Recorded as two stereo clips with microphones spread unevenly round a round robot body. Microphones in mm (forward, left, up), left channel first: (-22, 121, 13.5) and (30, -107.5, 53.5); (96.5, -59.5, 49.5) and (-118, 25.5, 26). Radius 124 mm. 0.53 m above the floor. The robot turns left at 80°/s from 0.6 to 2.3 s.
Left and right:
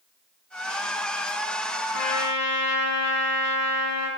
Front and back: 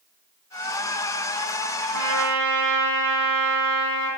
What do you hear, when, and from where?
1.9 s a trumpet: 145° left, 2.5 m; by 4.1 s 115° left, 2.5 m